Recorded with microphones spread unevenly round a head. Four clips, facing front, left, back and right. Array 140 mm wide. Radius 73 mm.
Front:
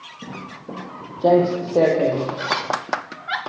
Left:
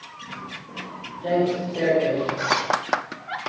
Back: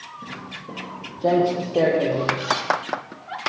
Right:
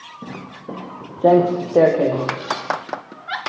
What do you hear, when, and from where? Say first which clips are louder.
0.2 s footsteps: right 5 dB, front 4 dB; 65° right, 3 m; by 2.4 s 75° right, 5.5 m
2.4 s a zipper: left 1 dB, even; 55° left, 3 m